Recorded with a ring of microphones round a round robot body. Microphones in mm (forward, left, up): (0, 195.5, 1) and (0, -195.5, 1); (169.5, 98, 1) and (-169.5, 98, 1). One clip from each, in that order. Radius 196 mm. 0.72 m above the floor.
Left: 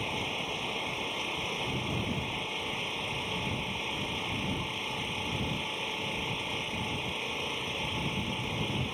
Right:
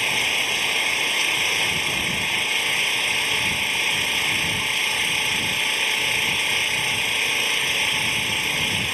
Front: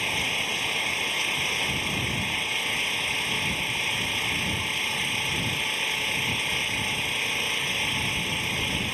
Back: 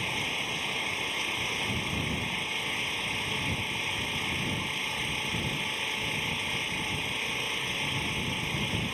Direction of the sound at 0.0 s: 80° right.